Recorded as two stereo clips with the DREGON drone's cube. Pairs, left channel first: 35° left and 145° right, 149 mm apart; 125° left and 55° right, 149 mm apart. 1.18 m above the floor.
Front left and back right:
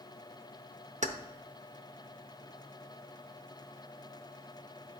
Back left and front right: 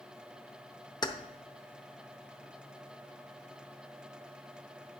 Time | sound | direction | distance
1.0 | keys jangling | 175° right | 0.8 m